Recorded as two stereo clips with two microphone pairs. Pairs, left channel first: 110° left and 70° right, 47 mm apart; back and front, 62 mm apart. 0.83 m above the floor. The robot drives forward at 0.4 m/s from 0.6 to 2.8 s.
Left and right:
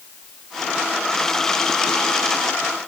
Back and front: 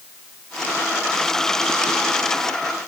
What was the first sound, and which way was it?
Only background noise.